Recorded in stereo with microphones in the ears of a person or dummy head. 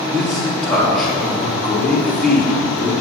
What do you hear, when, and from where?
0.1 s a man speaking: centre (ahead or behind), 3 m